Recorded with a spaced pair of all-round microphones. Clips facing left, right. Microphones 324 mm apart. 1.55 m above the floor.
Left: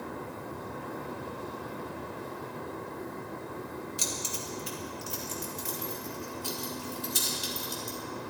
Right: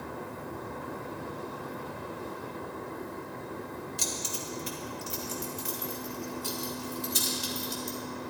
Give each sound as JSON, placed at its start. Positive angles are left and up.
{"t": 4.0, "sound": "keys jangling", "side_deg": 10, "distance_m": 2.0}